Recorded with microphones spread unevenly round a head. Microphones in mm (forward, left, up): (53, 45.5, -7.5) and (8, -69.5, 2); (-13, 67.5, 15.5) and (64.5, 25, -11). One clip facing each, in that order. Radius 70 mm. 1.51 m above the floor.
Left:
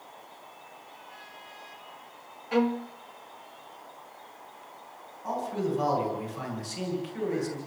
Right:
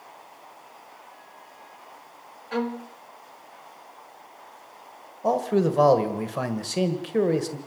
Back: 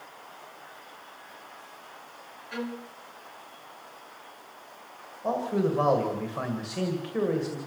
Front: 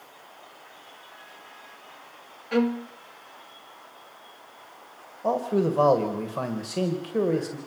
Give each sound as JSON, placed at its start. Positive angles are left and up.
{"t": 2.5, "sound": "a violin", "azimuth_deg": -10, "distance_m": 0.8}
{"t": 5.2, "sound": "a man speaking", "azimuth_deg": -90, "distance_m": 1.8}